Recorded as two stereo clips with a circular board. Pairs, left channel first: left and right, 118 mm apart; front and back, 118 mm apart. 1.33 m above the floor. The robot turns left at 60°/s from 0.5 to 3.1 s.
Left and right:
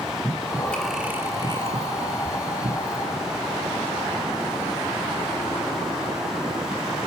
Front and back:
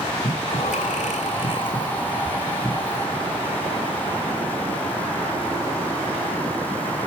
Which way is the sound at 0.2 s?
25° left.